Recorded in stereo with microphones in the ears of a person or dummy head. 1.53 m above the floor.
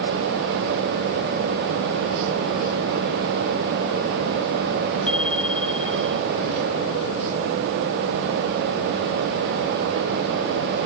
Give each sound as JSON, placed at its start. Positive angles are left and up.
{"t": 5.1, "sound": "a bicycle bell", "side_deg": 5}